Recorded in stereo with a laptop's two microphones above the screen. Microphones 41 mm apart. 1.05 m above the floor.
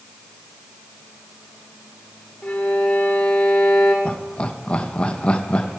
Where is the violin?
35° left (ahead or behind), 2.5 m.